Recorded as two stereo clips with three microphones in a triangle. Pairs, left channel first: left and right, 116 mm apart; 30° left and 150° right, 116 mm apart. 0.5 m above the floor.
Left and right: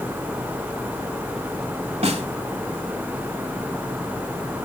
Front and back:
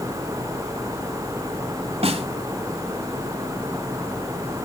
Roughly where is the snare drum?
Behind right.